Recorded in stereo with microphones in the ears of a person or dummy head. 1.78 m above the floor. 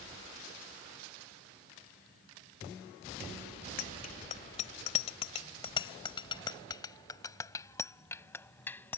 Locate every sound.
3.8 s a bicycle bell: 40° left (ahead or behind); by 9.0 s 5° left (ahead or behind)